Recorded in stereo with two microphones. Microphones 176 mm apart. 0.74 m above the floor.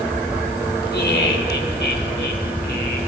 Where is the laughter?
70° left (ahead or behind), 3 m; by 3.0 s 75° left (ahead or behind), 4.5 m.